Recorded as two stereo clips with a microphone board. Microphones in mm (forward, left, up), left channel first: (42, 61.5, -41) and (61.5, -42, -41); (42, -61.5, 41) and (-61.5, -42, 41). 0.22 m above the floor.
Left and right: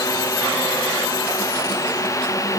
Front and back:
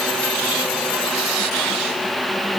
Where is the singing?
No singing in this recording.